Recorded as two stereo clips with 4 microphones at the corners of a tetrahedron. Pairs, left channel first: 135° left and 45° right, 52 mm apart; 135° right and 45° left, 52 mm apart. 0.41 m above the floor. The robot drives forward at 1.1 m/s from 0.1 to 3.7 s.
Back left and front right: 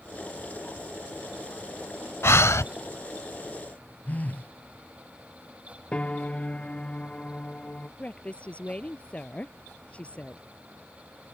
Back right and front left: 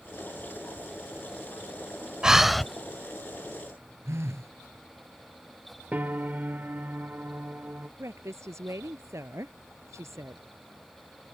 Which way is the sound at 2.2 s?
120° left.